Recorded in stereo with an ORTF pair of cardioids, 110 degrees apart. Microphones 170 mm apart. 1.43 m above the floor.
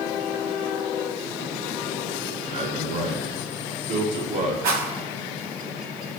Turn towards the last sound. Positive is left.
turn(degrees=-65)